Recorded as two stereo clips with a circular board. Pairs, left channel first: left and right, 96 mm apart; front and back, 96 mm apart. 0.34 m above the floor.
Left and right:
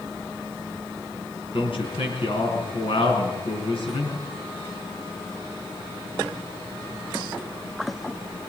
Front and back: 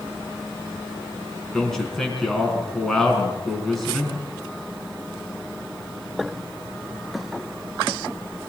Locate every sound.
1.5 s a man speaking: 85° left, 4 m